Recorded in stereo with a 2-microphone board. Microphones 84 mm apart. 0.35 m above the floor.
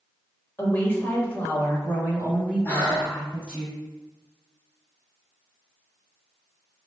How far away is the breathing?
About 1.5 m.